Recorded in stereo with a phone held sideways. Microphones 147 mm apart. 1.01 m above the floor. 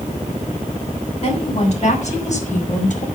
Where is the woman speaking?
50° left (ahead or behind), 7.5 m; by 3.1 s 65° left (ahead or behind), 5 m.